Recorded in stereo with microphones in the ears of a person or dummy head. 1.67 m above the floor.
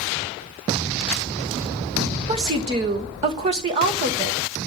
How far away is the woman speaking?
About 1.5 m.